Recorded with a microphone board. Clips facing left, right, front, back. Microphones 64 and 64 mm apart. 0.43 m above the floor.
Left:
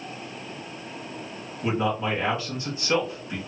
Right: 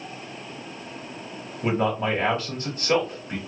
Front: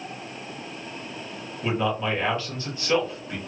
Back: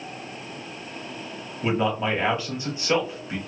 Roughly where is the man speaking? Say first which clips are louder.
Right 2 dB, back 2 dB; right.